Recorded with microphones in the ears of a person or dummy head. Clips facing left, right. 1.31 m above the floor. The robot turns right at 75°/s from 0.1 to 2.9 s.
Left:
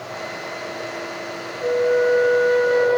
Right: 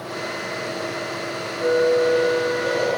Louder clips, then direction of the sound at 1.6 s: Even; 25° right.